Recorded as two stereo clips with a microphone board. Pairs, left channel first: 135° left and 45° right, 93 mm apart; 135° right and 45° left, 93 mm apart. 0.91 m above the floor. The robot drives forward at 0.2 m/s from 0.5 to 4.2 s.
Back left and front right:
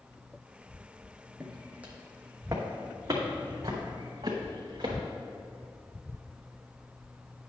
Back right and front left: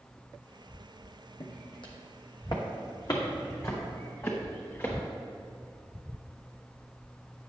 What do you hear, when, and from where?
1.4 s footsteps: 130° right, 1.9 m; by 5.0 s 75° right, 4 m